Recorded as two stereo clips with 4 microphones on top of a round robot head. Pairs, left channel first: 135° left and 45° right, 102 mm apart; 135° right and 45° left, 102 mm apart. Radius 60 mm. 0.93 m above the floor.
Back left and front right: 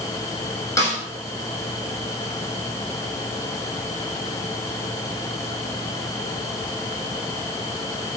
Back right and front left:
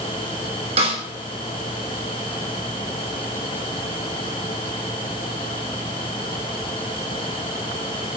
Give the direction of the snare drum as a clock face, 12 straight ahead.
10 o'clock.